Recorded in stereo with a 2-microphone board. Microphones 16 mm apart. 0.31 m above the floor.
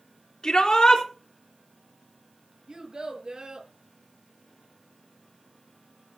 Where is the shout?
60° left (ahead or behind), 3.5 m.